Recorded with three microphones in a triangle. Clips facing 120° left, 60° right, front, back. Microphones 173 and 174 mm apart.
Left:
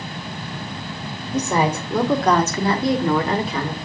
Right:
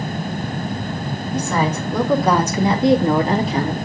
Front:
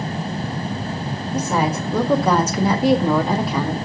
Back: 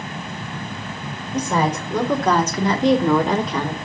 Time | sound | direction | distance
1.3 | a woman speaking | 75° left | 1.1 m